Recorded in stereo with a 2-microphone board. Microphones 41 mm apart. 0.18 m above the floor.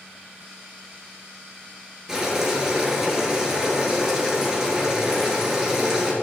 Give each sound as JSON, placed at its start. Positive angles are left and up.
{"t": 2.1, "sound": "boiling", "side_deg": -10, "distance_m": 3.0}